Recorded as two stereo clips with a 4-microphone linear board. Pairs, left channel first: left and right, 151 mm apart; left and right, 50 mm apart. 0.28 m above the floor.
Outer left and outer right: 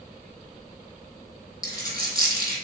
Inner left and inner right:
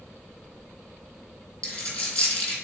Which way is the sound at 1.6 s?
25° left (ahead or behind).